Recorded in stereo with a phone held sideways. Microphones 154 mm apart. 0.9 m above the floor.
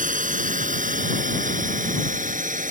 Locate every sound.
0.0 s a drone: 60° right (ahead or behind); by 2.7 s 55° right (ahead or behind)